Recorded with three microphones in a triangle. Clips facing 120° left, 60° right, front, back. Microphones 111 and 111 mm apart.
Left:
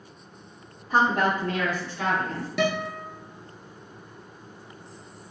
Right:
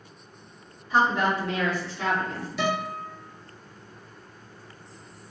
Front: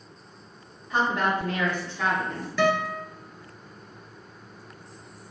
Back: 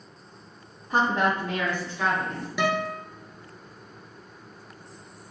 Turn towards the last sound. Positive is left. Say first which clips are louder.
# left 2 dB, front 3 dB
turn(degrees=105)